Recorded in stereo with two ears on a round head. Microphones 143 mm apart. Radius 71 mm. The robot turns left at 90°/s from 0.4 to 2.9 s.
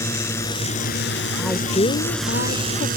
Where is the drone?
20° left (ahead or behind); by 3.0 s 60° right (ahead or behind).